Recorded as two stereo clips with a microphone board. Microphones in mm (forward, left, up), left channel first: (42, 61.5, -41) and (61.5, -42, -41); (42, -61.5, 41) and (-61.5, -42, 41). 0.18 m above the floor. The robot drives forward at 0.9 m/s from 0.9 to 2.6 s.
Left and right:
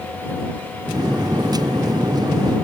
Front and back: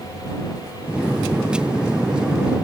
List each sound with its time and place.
Only background noise.